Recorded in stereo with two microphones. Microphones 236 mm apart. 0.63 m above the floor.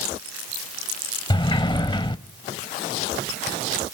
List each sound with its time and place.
1.3 s a sliding door: 20° left (ahead or behind), 0.7 m